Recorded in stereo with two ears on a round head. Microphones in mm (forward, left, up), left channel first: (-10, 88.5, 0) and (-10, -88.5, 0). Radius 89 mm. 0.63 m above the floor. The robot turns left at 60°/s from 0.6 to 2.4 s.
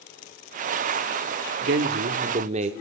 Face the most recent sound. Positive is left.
turn(degrees=-140)